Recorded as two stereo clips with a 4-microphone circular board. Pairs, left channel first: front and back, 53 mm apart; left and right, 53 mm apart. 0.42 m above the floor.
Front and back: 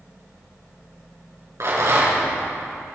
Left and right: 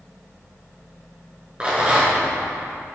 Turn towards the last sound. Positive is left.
turn(degrees=-160)